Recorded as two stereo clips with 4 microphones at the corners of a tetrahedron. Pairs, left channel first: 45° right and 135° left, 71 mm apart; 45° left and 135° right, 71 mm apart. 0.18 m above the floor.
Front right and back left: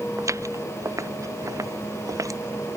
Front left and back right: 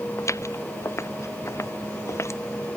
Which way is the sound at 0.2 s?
95° left.